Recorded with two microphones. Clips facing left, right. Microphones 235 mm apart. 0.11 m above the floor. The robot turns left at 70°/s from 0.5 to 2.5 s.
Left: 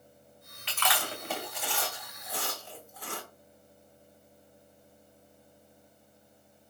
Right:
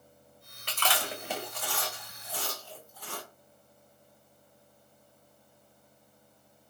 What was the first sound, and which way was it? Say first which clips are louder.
Chewing: even; 45° right (ahead or behind).